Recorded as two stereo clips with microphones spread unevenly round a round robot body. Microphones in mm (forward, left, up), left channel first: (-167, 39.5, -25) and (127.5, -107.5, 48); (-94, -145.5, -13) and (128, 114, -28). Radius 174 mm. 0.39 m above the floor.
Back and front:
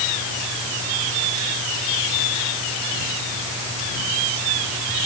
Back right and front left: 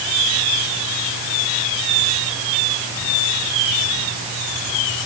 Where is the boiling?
No boiling in this recording.